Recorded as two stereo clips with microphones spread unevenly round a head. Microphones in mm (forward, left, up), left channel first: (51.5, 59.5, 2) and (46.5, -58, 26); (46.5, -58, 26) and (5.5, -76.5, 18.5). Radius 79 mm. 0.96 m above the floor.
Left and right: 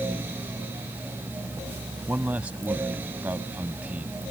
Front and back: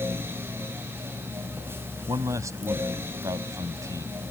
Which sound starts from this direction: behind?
A man speaking, at 2.1 s.